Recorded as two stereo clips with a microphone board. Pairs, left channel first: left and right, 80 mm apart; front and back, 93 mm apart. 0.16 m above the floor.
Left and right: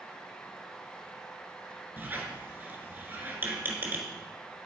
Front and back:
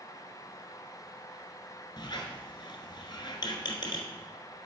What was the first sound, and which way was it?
A squeak, 30° right.